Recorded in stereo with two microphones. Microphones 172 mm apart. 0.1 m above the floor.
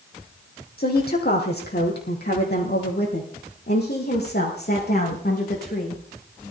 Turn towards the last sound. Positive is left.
turn(degrees=65)  # may be behind; listen again after turning